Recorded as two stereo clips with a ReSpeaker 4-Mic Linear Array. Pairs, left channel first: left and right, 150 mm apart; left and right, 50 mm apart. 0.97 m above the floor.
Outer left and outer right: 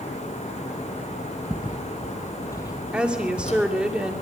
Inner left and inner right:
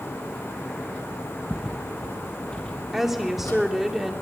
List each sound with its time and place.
1.5 s footsteps: 15° right (ahead or behind), 1.9 m; by 3.6 s 50° left (ahead or behind), 2.5 m
2.9 s a woman speaking: 5° right (ahead or behind), 2.5 m